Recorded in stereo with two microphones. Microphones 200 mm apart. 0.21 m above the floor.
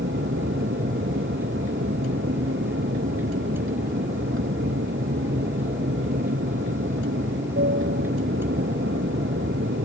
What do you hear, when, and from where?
0.0 s an aircraft: 80° right